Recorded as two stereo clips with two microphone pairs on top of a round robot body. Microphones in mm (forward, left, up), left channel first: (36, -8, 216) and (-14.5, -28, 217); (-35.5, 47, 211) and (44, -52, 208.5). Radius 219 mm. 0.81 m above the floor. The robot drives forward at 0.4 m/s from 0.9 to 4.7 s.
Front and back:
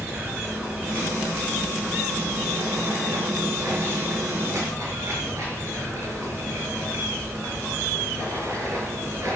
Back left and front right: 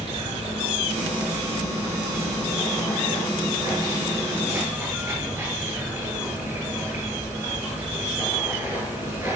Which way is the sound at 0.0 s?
95° right.